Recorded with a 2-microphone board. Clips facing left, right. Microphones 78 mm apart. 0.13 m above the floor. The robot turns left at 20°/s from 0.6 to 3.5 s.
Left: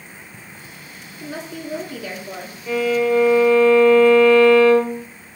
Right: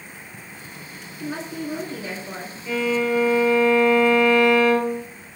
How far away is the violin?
About 1.0 m.